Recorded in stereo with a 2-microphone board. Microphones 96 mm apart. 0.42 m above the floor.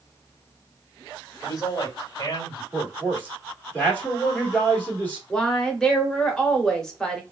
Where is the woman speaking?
10° left (ahead or behind), 0.8 m.